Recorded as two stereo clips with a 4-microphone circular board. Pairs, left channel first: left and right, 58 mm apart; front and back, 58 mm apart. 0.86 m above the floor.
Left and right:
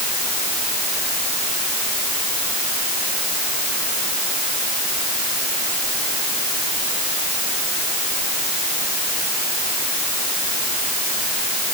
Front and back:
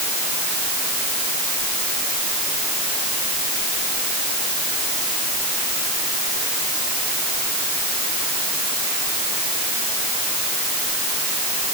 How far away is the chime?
I don't hear a chime.